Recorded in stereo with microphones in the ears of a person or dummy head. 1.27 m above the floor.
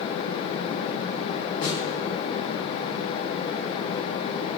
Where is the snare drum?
45° left (ahead or behind), 5 m.